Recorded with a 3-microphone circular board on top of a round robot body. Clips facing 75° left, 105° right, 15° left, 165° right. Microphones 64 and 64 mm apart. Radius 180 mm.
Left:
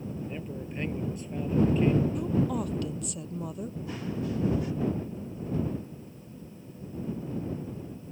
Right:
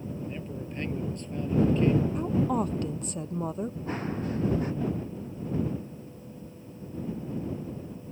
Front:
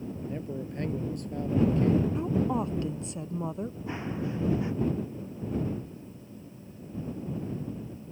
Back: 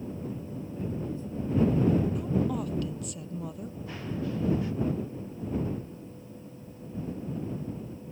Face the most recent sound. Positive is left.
turn(degrees=-55)